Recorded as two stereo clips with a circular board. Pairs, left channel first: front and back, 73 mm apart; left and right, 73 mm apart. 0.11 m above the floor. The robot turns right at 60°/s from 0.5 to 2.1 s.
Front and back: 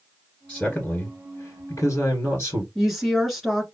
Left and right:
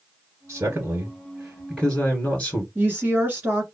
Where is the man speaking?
70° right, 1.9 m; by 2.6 s 25° left, 1.9 m.